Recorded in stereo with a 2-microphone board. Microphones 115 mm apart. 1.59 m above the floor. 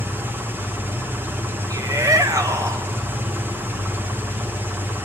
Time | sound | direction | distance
0.0 | an engine running | 20° right (ahead or behind) | 1.8 m
1.7 | a shout | 30° right (ahead or behind) | 1.6 m